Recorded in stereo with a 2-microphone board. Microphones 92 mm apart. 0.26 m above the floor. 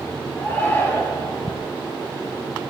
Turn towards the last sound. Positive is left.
turn(degrees=20)  # may be behind; listen again after turning